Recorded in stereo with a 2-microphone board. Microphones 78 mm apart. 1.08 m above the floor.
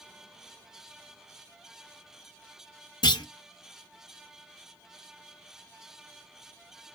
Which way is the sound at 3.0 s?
70° left (ahead or behind).